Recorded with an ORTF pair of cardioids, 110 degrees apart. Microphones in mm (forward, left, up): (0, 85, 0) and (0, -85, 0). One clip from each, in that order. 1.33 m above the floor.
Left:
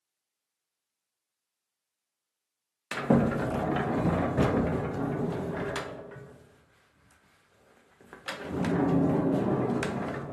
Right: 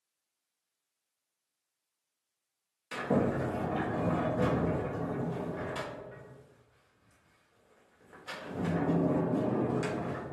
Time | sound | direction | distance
2.9 | a sliding door | 50° left | 0.6 m